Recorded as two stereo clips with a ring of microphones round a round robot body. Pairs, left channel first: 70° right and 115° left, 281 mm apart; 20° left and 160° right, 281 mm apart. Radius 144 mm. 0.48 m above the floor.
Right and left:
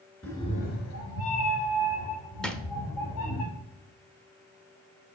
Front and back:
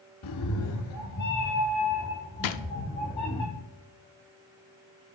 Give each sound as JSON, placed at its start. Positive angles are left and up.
{"t": 0.2, "sound": "a cat meowing", "azimuth_deg": 20, "distance_m": 0.7}
{"t": 2.4, "sound": "a drawer", "azimuth_deg": 20, "distance_m": 0.5}